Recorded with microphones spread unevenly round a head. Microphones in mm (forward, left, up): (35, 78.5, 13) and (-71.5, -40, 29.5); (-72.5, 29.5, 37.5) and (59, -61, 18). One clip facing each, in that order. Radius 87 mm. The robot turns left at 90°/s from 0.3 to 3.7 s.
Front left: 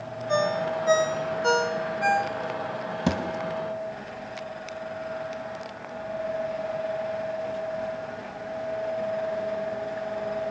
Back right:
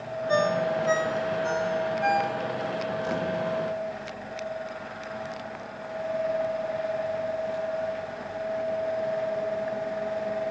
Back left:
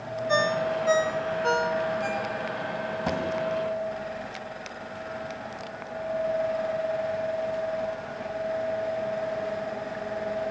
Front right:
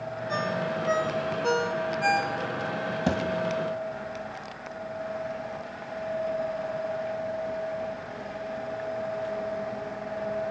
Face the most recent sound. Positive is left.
turn(degrees=-30)